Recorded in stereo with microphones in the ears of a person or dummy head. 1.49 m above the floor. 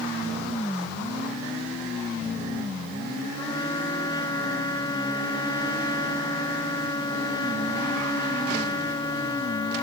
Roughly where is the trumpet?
Left.